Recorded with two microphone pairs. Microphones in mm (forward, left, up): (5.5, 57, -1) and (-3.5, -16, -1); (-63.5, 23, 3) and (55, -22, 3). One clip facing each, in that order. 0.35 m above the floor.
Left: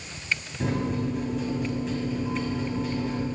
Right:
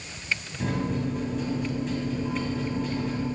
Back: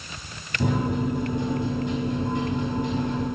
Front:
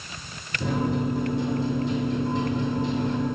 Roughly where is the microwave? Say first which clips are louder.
Left 1 dB, back 1 dB; behind.